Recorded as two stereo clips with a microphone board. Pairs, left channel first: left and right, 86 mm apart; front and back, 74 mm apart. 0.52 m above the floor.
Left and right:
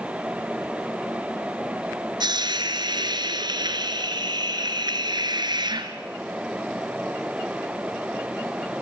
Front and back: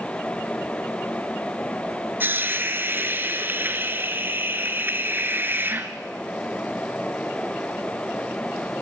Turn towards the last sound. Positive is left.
turn(degrees=-120)